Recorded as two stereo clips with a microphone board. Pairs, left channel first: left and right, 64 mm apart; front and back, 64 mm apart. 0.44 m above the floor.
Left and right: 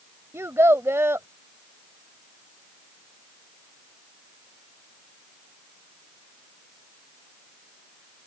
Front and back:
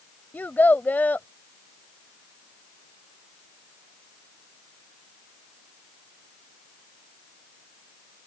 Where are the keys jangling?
No keys jangling in this recording.